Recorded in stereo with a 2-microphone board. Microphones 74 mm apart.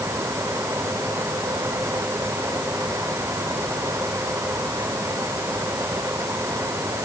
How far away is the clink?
I don't hear a clink.